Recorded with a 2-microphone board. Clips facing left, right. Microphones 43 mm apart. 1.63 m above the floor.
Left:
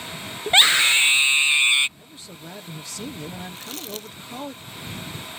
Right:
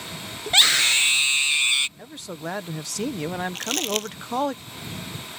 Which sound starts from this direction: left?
A scream, at 0.5 s.